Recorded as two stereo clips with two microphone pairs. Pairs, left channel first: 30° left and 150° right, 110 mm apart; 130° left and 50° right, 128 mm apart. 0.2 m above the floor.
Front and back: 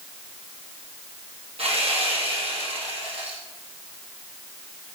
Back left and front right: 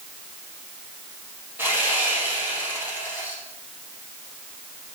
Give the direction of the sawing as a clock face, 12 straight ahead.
4 o'clock.